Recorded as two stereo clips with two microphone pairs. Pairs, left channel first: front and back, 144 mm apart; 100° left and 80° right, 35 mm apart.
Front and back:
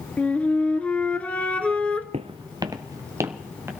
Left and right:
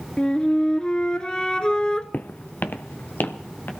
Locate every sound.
0.2 s a flute: 70° left, 1.1 m
2.1 s footsteps: 135° left, 0.5 m; by 3.7 s 105° left, 2.0 m